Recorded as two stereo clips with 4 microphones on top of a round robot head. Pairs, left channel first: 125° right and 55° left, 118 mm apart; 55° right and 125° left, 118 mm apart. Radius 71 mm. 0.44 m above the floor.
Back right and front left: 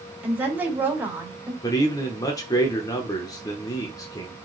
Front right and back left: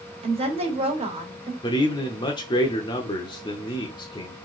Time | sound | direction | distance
0.2 | a woman speaking | 130° left | 2 m
1.6 | a man speaking | 80° right | 0.9 m